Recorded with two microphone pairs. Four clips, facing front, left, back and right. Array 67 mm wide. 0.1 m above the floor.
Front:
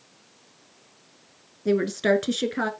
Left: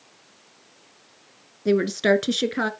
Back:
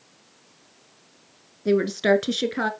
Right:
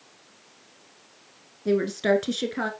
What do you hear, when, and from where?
1.6 s a woman speaking: 105° left, 1.1 m